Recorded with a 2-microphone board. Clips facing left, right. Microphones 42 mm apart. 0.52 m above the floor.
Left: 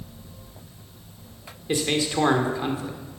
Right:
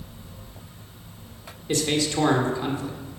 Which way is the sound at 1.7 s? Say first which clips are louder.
Even; 15° left (ahead or behind).